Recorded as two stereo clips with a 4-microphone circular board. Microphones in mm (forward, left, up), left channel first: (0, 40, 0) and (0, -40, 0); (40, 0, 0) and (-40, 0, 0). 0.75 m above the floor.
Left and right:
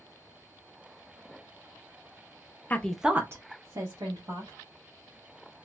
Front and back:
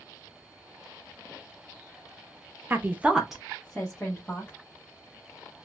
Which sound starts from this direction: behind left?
A woman speaking, at 2.7 s.